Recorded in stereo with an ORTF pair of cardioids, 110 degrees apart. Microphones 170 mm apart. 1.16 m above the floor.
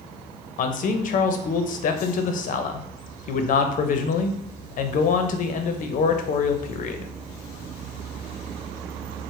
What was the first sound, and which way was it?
A man speaking, 55° left.